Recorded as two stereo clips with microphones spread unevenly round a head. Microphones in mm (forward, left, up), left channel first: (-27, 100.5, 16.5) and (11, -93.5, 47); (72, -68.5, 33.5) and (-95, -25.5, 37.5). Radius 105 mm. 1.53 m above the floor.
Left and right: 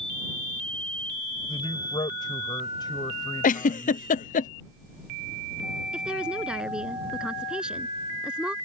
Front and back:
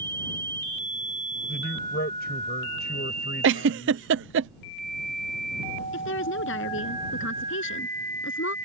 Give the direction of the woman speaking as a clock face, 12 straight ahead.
12 o'clock.